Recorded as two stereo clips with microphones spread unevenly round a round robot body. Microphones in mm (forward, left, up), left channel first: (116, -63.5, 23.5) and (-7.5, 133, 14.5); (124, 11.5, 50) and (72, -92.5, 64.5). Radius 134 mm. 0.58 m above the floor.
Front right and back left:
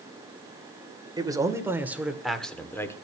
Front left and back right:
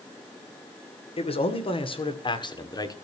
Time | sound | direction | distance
1.2 | a man speaking | 50° left | 2.5 m